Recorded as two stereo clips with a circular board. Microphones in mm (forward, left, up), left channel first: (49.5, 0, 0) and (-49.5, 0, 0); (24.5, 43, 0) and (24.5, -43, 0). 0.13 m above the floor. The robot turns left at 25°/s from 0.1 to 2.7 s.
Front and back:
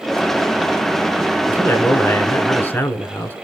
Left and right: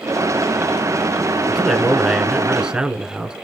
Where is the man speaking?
5° left, 1.1 m; by 3.3 s 25° right, 1.1 m.